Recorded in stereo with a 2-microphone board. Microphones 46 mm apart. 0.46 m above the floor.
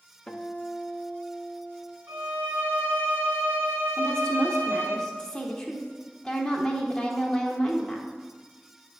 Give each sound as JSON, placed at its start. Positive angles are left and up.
{"t": 0.3, "sound": "a guitar", "side_deg": 20, "distance_m": 0.6}
{"t": 2.1, "sound": "a violin", "side_deg": -55, "distance_m": 1.8}
{"t": 4.0, "sound": "a woman speaking", "side_deg": 15, "distance_m": 1.1}